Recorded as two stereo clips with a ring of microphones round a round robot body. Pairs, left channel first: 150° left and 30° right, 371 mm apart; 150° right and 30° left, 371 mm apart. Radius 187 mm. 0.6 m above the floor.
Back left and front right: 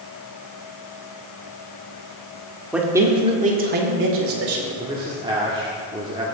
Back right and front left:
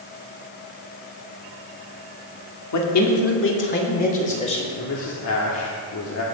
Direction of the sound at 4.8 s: 105° right.